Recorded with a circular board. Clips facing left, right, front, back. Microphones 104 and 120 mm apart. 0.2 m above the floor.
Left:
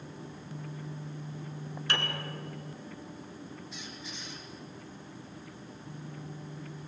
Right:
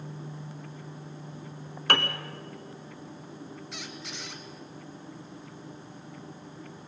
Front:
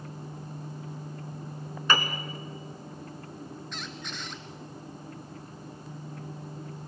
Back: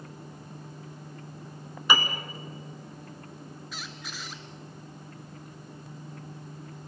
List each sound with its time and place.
1.9 s a piano: 100° right, 1.4 m
3.7 s a squeak: 95° right, 1.4 m